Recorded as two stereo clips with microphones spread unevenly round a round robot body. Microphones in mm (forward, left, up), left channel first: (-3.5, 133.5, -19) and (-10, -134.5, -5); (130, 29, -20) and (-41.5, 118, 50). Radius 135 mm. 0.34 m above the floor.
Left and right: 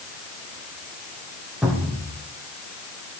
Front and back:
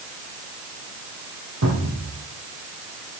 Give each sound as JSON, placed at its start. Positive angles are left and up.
{"t": 1.6, "sound": "a cupboard door", "azimuth_deg": 180, "distance_m": 4.5}